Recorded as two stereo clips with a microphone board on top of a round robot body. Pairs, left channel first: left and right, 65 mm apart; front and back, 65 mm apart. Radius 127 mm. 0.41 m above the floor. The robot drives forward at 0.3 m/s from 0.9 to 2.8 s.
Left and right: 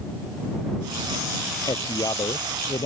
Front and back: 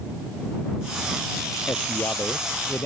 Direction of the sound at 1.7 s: 65° left.